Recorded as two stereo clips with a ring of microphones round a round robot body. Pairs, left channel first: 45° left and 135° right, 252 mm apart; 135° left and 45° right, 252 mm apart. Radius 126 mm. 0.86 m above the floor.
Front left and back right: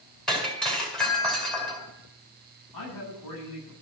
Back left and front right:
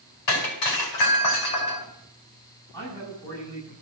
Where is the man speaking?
55° left, 9 m.